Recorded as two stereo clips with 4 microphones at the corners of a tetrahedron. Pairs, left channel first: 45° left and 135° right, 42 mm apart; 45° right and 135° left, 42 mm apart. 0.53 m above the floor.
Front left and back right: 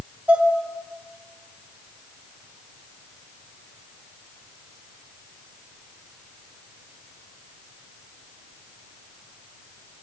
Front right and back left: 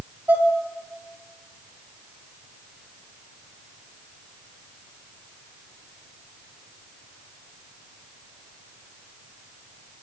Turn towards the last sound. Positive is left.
turn(degrees=165)